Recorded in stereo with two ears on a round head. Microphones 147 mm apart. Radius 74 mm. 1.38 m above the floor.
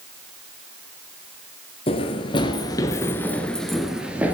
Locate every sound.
1.9 s running footsteps: 35° left (ahead or behind), 1.7 m; by 4.3 s 10° right (ahead or behind), 1.6 m